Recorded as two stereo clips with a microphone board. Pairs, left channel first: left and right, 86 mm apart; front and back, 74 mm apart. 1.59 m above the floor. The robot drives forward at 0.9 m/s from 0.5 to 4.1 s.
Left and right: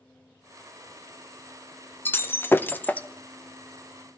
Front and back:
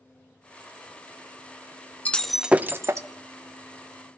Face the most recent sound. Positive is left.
turn(degrees=170)